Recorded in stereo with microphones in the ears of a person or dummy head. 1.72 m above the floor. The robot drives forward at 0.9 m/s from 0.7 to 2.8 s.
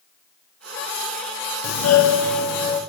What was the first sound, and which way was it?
A doorbell, 80° left.